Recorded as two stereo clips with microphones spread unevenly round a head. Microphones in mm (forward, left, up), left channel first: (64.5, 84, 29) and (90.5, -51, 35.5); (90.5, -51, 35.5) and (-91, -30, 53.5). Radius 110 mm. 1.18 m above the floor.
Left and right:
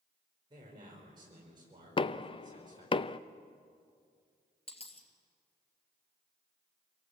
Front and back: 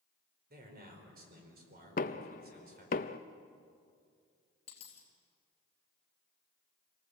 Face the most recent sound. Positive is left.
turn(degrees=60)